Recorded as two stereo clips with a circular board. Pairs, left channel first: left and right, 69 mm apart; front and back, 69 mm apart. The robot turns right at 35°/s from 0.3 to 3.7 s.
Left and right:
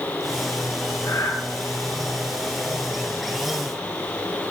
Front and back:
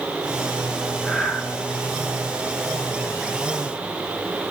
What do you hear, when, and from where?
1.0 s breathing: 80° left, 8.5 m; by 1.4 s 95° left, 8.5 m